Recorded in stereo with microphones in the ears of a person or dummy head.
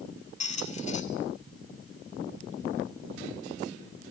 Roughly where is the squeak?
Left.